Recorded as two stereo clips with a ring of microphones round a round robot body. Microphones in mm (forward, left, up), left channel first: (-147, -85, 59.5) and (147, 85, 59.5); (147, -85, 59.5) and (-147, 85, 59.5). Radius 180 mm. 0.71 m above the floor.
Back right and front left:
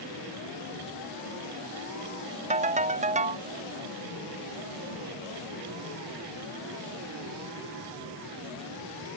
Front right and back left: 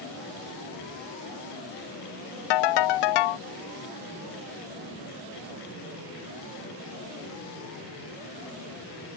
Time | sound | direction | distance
2.5 | a ringtone | 40° right | ?